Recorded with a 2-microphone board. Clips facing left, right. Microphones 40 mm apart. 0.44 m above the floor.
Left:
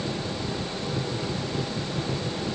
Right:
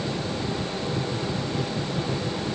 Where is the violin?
I don't hear a violin.